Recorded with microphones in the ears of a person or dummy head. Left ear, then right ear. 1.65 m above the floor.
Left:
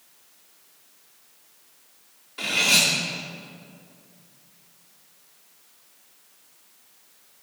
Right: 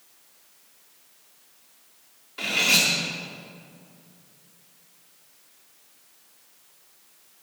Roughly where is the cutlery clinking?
Centre.